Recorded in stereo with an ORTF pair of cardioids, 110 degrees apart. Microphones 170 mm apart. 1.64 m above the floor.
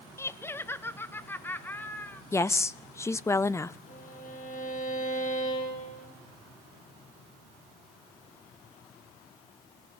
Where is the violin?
50° left, 5.5 m.